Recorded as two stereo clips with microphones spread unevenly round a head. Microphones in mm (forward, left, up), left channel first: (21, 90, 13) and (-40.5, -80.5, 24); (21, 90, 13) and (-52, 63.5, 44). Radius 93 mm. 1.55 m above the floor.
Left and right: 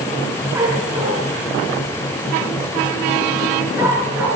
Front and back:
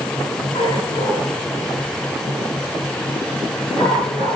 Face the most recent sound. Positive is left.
turn(degrees=-35)